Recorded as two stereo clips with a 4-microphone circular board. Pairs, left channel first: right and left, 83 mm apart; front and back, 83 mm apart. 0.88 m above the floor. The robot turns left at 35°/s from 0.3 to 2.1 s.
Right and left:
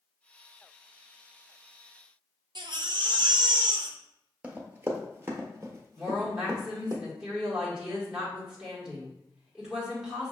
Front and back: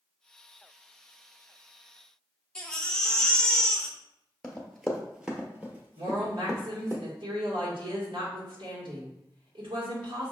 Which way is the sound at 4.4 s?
60° left.